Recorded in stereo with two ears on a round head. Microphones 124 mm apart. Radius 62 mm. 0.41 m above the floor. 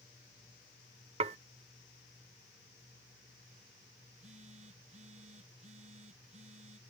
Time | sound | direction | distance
1.2 | dishes clattering | 45° right (ahead or behind) | ?
4.1 | a phone buzzing | 50° right (ahead or behind) | ?